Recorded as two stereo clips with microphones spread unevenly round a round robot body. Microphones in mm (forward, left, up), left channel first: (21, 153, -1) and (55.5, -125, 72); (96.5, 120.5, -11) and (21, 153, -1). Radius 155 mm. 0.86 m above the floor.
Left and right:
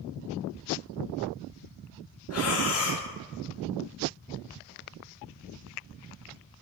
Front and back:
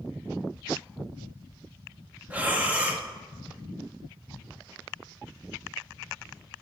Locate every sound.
2.3 s breathing: 80° left, 1.3 m